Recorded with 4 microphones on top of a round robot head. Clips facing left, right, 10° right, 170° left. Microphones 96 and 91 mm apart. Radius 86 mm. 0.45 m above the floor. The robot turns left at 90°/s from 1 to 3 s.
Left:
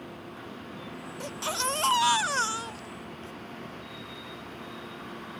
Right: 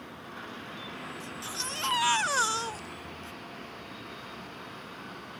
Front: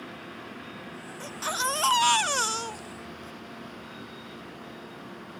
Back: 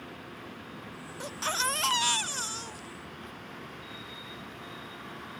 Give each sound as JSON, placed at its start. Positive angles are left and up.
{"t": 1.2, "sound": "a baby crying", "azimuth_deg": 100}